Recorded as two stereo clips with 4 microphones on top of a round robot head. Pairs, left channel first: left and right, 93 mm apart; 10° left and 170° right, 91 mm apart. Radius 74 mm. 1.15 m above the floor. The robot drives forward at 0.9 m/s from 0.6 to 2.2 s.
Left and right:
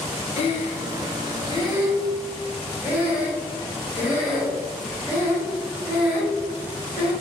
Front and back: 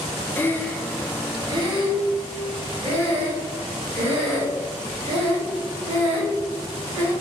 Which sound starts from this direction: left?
Breathing, at 0.4 s.